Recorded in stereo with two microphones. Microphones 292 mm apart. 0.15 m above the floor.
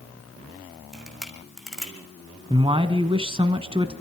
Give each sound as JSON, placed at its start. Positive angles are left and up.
{"t": 0.9, "sound": "a camera shutter", "side_deg": 0, "distance_m": 3.5}
{"t": 2.5, "sound": "a man speaking", "side_deg": -20, "distance_m": 1.4}